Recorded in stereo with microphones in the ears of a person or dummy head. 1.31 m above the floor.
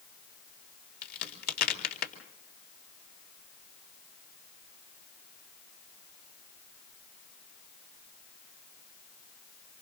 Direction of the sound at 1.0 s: 55° left (ahead or behind).